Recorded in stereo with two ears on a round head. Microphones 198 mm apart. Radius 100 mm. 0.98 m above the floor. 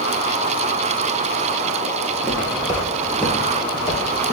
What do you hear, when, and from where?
2.1 s footsteps: 35° right (ahead or behind), 1.1 m; by 4.3 s 35° left (ahead or behind), 1.2 m